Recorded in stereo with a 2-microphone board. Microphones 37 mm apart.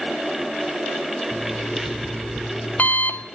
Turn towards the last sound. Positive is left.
turn(degrees=50)  # may be behind; listen again after turning